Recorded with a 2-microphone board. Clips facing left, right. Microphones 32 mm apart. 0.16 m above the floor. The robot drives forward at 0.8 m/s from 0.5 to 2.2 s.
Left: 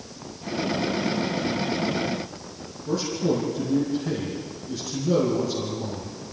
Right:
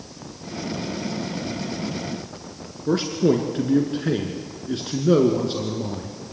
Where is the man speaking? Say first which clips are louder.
Right 5 dB; 50° right (ahead or behind), 2 m.